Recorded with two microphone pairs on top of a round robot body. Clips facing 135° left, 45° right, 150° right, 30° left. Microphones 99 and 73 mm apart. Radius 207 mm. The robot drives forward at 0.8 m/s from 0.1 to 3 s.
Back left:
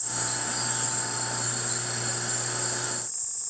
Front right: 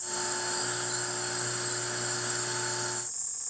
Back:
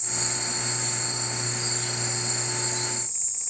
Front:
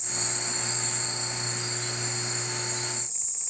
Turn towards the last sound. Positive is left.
turn(degrees=145)